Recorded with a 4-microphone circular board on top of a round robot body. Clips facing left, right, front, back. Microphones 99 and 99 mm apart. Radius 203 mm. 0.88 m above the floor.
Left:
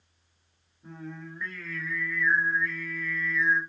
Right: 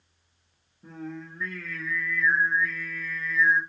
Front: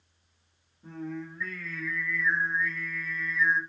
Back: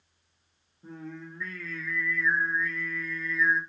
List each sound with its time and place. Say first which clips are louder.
0.8 s singing: right 3 dB, front 4 dB; 110° right, 0.5 m